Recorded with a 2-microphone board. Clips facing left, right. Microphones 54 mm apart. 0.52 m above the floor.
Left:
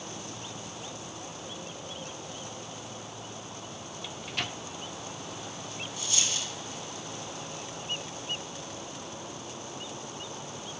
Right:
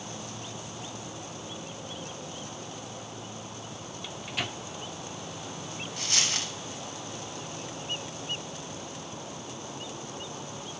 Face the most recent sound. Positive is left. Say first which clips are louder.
# right 3 dB
turn(degrees=-65)  # may be behind; listen again after turning